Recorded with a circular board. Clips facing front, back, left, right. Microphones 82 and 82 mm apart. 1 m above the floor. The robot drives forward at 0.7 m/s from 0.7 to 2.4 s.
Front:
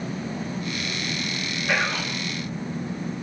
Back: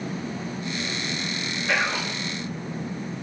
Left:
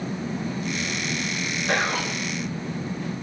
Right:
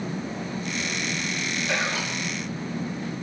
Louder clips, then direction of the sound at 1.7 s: Even, left 5 dB; 90° left.